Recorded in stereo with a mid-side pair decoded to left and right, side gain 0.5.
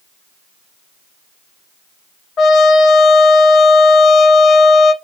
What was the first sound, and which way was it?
A trumpet, 50° left.